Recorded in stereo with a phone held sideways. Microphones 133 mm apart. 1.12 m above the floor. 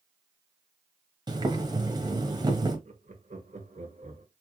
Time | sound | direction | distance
1.3 | boiling | 30° right (ahead or behind) | 1.1 m
2.9 | laughter | 60° right (ahead or behind) | 1.6 m